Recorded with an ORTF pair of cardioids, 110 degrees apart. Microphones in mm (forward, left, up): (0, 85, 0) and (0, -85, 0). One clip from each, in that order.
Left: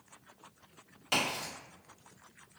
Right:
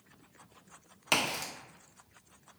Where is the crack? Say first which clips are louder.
Right 2 dB; 60° right, 0.9 m.